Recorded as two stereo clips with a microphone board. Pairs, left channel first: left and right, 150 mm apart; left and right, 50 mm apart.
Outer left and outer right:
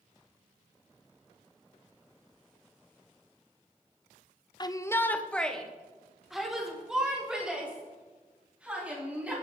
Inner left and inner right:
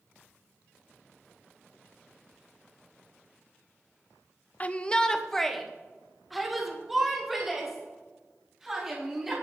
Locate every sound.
4.6 s a shout: 30° left (ahead or behind), 0.6 m; by 9.3 s 10° right (ahead or behind), 4.5 m